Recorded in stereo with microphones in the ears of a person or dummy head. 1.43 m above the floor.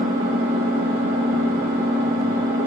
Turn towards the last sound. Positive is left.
turn(degrees=-40)  # may be behind; listen again after turning